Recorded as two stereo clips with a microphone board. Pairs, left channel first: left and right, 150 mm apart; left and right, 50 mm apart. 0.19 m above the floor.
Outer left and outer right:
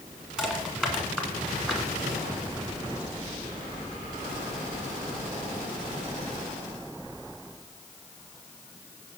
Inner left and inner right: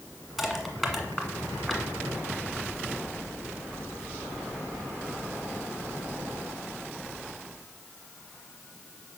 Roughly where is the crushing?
Centre.